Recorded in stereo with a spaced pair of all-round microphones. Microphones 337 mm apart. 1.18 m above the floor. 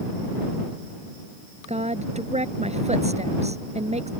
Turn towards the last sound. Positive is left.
turn(degrees=-20)  # may be behind; listen again after turning